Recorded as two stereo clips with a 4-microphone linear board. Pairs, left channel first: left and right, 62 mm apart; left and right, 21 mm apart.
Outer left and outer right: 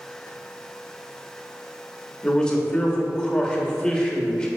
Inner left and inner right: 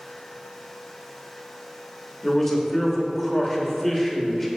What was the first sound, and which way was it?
A man speaking, 10° left (ahead or behind).